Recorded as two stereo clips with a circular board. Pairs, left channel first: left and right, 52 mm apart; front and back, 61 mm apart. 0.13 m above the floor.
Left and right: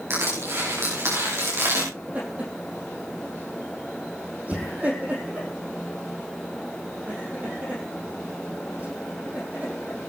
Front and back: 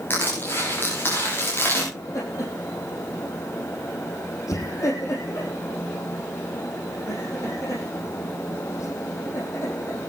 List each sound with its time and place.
0.1 s crushing: 55° right, 9.5 m
1.9 s laughter: 30° right, 4.5 m